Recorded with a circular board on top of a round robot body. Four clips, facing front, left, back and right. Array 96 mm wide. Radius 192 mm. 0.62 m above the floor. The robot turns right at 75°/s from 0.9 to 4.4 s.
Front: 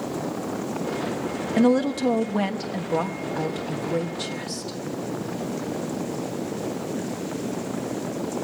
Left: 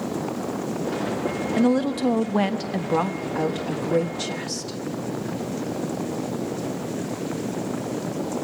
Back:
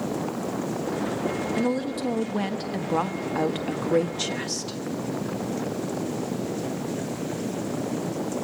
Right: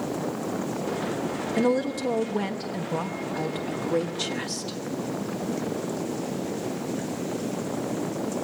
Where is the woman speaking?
20° left, 1.3 m; by 4.8 s 130° right, 1.3 m.